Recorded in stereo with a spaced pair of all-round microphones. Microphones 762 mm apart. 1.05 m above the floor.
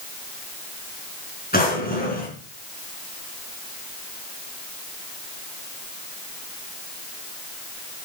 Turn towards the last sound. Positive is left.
turn(degrees=10)  # may be behind; listen again after turning